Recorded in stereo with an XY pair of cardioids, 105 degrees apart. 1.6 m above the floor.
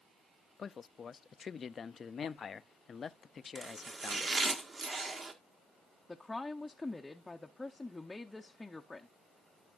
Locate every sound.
0.6 s a man speaking: 40° left, 0.6 m
3.5 s chopping: 40° right, 1.5 m
6.1 s a woman speaking: 15° left, 0.7 m